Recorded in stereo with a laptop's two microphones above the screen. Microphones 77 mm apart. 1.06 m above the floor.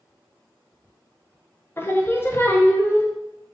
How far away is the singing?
About 0.6 m.